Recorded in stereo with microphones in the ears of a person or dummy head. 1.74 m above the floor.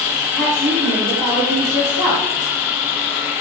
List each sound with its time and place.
0.3 s a woman speaking: 10° left (ahead or behind), 2 m